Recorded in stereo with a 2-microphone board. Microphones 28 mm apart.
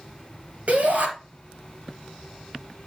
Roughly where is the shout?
Right.